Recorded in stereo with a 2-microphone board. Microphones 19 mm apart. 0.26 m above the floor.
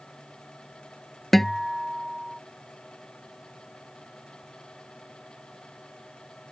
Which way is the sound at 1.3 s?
15° left (ahead or behind).